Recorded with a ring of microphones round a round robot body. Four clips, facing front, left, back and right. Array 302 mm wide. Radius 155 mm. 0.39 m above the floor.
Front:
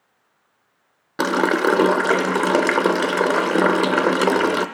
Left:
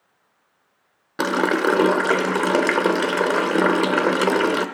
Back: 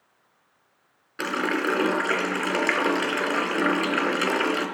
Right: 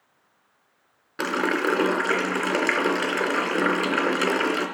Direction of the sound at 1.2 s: 30° left.